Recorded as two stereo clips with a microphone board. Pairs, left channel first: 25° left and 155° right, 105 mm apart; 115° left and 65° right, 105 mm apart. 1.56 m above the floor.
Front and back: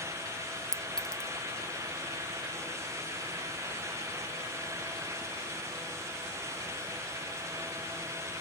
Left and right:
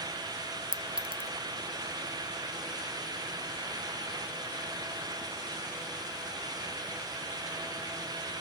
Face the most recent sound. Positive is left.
turn(degrees=-60)